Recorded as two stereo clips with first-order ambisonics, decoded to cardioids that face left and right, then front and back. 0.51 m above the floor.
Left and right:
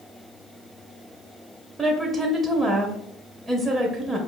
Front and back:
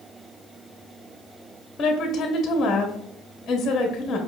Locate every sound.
1.8 s a woman speaking: 30° right, 0.7 m